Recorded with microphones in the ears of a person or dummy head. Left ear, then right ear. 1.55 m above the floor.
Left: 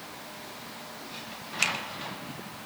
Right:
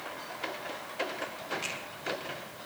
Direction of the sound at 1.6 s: 75° left (ahead or behind).